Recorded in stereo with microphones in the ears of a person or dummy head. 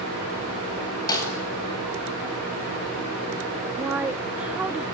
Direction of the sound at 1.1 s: 20° left (ahead or behind).